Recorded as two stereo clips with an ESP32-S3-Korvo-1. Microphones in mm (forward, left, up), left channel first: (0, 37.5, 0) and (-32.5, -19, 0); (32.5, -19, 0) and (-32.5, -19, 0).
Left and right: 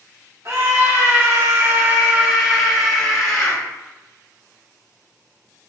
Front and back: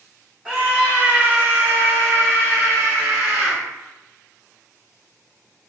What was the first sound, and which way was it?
A scream, 110° right.